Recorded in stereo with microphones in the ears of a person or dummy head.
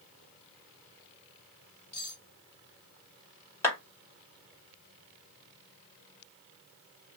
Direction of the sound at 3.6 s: 15° left (ahead or behind).